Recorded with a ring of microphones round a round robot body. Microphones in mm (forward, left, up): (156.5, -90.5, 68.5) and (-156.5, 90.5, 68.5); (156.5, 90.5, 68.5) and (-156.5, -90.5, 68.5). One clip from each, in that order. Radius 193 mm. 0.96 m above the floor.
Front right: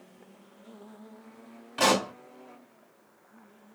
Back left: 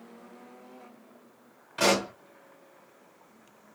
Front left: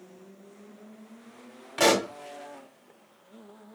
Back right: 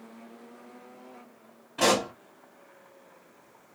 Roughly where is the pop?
Ahead left.